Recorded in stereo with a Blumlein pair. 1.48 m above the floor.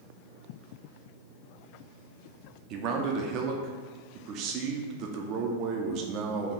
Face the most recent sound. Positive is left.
turn(degrees=-35)